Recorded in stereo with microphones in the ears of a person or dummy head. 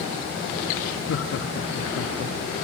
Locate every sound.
1.1 s laughter: 70° left (ahead or behind), 2 m; by 2.4 s 50° left (ahead or behind), 2.5 m